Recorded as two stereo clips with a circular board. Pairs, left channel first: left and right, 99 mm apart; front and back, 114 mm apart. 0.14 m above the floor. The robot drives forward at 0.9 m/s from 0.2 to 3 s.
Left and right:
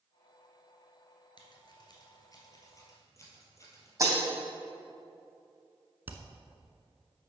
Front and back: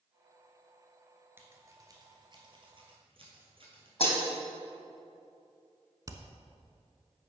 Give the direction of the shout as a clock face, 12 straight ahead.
I don't hear a shout.